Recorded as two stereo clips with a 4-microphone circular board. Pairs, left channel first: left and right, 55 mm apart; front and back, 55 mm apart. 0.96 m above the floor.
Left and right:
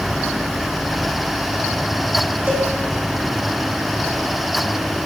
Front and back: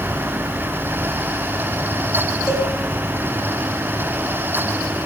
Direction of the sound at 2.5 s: 30° right.